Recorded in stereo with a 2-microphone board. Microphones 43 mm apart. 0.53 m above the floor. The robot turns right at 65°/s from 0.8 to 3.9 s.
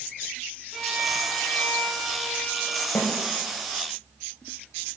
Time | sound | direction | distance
0.7 | a violin | 5° right (ahead or behind) | 1.0 m
3.0 | a snare drum | 80° left | 0.6 m